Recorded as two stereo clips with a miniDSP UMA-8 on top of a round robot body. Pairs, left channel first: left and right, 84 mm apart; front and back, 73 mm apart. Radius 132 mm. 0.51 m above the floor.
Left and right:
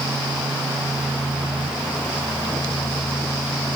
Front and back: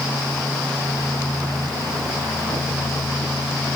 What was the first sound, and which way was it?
Only background noise.